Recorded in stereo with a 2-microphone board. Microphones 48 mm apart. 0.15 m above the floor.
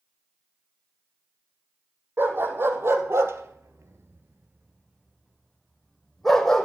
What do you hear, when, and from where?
2.2 s a dog barking: 50° right (ahead or behind), 2.5 m; by 6.6 s 5° left (ahead or behind), 3 m